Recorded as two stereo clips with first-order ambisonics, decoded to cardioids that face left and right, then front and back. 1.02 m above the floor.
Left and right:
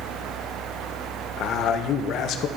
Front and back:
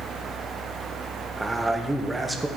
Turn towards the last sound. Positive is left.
turn(degrees=105)